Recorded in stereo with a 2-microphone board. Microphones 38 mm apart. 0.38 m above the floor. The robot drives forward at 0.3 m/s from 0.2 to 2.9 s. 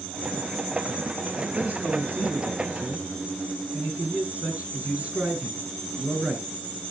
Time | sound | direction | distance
1.6 | a man speaking | 45° right (ahead or behind) | 5 m